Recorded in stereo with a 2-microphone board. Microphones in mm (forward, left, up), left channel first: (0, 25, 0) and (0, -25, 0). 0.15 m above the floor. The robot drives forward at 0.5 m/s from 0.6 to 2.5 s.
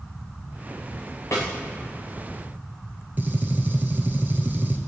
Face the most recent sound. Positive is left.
turn(degrees=-35)  # may be behind; listen again after turning